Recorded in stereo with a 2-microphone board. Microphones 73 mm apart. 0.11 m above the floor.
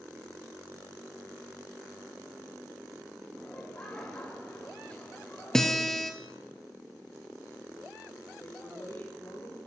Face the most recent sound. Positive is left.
turn(degrees=40)  # may be behind; listen again after turning